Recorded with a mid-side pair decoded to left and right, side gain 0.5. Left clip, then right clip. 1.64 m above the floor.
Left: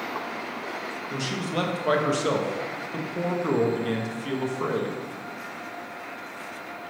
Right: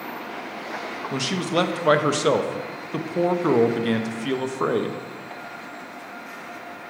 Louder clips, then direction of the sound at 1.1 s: Right 6 dB; 40° right.